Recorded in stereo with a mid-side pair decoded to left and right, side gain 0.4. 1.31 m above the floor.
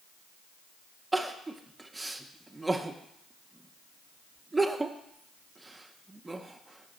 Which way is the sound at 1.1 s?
20° right.